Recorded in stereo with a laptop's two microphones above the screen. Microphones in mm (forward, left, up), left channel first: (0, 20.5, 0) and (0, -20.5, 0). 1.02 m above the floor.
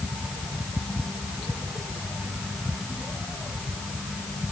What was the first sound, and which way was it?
Only background noise.